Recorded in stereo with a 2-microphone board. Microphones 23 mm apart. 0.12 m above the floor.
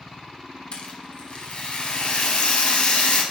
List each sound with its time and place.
0.7 s a rattle: 50° left (ahead or behind), 1.9 m